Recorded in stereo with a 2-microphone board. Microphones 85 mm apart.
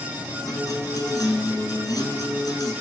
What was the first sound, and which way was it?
A guitar, 45° left (ahead or behind).